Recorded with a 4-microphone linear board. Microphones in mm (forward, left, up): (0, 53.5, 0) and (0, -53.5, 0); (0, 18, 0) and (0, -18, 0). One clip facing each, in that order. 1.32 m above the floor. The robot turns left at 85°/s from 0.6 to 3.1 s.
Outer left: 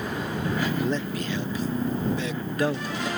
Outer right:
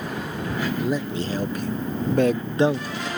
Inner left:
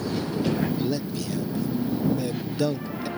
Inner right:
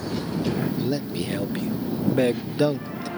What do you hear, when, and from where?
0.8 s a man speaking: 5° left (ahead or behind); by 3.1 s 10° left (ahead or behind)